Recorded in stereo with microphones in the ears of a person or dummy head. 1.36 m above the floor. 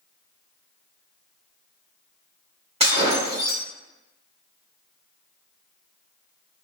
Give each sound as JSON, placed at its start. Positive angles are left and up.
{"t": 2.8, "sound": "breaking glass", "side_deg": -25, "distance_m": 1.6}